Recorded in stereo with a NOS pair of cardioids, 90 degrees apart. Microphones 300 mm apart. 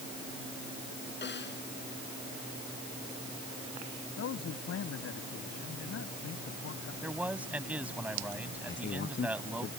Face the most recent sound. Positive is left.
turn(degrees=40)